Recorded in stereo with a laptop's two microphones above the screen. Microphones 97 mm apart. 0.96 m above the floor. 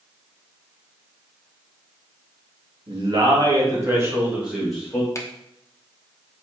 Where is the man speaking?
50° right (ahead or behind), 1.5 m; by 5.0 s 10° left (ahead or behind), 1.2 m.